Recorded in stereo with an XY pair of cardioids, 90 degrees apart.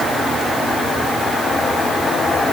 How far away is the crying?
I don't hear crying.